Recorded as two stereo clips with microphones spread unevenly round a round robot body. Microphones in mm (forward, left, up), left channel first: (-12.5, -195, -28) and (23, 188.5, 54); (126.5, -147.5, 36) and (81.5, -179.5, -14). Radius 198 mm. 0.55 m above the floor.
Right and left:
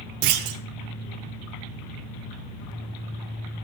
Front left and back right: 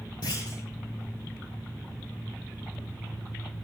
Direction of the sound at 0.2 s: 95° left.